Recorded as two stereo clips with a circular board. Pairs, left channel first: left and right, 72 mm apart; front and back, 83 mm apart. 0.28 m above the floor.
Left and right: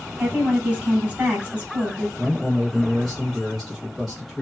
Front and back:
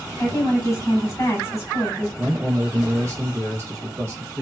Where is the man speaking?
175° right, 1.0 m.